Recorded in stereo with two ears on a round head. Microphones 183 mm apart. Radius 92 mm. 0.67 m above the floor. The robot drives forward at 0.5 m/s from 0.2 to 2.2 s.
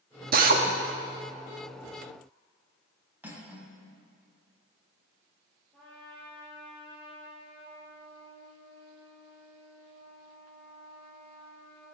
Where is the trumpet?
5° left (ahead or behind), 6 m.